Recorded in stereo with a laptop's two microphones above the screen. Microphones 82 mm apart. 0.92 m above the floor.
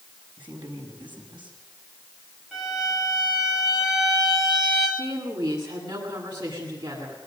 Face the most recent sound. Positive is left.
turn(degrees=-70)  # may be behind; listen again after turning